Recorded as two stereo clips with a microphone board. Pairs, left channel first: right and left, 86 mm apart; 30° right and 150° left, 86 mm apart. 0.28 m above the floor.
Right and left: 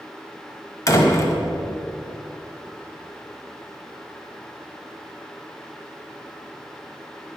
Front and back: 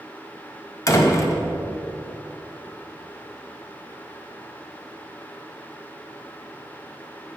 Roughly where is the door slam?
Ahead right.